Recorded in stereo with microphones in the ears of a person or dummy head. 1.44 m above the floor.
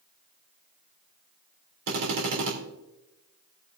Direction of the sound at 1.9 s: 80° right.